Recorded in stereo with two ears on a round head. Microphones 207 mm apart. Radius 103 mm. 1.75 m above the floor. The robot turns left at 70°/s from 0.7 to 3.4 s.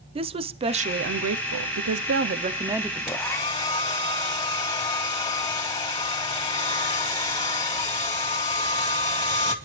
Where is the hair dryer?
5° right (ahead or behind), 3.5 m; by 9.6 s 20° left (ahead or behind), 3.5 m.